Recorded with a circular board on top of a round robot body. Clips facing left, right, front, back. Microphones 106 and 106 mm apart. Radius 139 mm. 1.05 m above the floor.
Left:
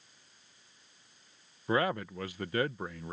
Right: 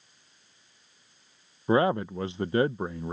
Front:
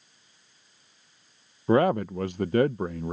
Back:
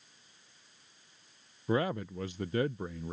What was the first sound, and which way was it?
A man speaking, 25° right.